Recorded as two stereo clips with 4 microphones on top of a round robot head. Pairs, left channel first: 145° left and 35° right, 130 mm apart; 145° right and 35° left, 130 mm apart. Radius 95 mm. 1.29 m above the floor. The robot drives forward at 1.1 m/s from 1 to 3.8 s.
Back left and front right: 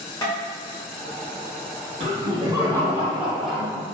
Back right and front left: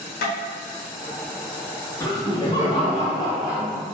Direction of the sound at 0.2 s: 145° right.